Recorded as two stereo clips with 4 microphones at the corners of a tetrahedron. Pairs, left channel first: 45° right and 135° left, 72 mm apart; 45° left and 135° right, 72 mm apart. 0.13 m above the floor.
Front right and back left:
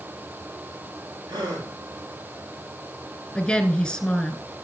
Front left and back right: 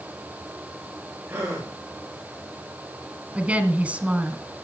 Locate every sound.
1.3 s a gasp: 160° left, 9.5 m
3.4 s a woman speaking: 100° right, 1.6 m